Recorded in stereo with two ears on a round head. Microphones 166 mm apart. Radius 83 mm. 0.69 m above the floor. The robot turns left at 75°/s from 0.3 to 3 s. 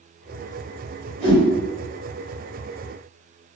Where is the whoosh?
55° right (ahead or behind), 1.5 m; by 1.4 s 45° right (ahead or behind), 1.5 m.